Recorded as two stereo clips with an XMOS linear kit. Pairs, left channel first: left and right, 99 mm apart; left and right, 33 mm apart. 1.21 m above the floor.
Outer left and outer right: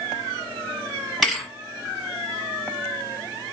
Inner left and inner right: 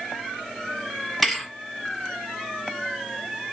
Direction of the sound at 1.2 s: Centre (ahead or behind).